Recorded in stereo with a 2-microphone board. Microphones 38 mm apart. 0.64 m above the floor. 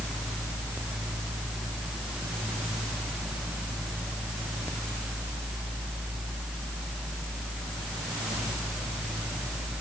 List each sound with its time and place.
Only background noise.